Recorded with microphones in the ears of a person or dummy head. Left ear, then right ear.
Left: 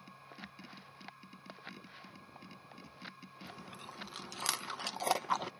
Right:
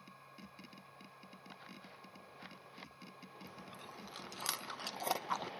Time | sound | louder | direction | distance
0.0 | a machine running | left 5 dB | 5° right (ahead or behind) | ?
3.5 | chewing | left 4 dB | 10° left (ahead or behind) | ?